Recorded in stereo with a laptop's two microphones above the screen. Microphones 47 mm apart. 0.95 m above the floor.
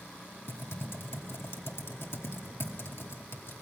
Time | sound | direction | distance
0.5 | typing on a keyboard | 60° left (ahead or behind) | 2 m